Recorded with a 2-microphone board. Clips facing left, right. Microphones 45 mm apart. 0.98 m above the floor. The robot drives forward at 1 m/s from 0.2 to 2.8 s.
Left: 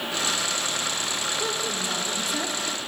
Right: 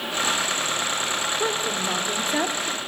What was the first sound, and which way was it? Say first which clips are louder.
A woman speaking: right 3 dB; 25° right (ahead or behind).